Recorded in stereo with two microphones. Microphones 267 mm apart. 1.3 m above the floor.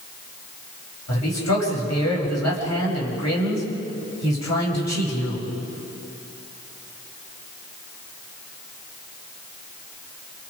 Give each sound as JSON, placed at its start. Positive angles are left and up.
{"t": 1.1, "sound": "a man speaking", "side_deg": 85, "distance_m": 6.5}